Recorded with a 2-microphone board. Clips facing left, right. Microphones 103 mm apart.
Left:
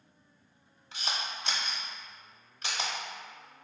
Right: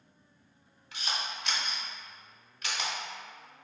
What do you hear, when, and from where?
0.9 s a camera shutter: 30° left (ahead or behind), 0.8 m